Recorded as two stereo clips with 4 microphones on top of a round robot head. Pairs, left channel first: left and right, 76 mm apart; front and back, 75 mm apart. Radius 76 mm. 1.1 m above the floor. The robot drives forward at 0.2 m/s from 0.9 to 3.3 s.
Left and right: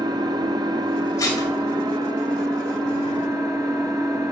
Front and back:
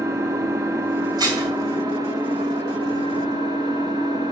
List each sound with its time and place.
0.0 s an engine running: 125° right, 1.1 m; by 4.3 s 140° right, 1.4 m
1.2 s dishes clattering: 150° left, 6 m